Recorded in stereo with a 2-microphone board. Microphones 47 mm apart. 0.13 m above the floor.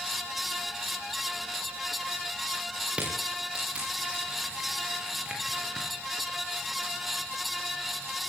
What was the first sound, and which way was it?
Crushing, 20° right (ahead or behind).